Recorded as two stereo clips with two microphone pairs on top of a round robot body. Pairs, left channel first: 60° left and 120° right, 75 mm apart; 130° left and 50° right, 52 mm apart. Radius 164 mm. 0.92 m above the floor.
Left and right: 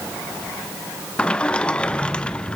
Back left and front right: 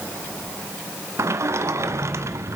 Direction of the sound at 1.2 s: 20° right.